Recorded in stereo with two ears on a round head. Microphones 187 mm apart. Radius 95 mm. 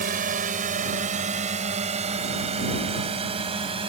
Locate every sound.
0.0 s a drone: 45° right (ahead or behind); by 3.9 s 25° right (ahead or behind)